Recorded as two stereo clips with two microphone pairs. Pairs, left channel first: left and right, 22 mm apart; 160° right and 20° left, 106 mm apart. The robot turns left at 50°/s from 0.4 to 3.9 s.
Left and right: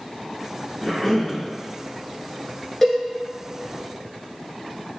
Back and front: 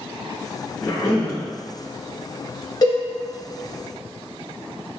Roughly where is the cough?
Behind.